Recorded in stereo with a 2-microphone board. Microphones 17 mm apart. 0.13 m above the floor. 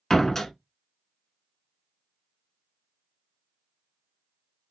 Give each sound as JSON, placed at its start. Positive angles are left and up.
{"t": 0.1, "sound": "a door slam", "side_deg": 25, "distance_m": 0.8}